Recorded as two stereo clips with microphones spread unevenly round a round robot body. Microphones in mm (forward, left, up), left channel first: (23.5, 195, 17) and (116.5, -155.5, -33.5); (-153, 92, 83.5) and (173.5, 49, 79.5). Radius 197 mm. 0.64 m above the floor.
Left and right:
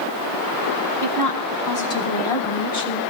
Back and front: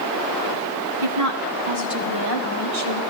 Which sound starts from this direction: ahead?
A woman speaking, at 1.0 s.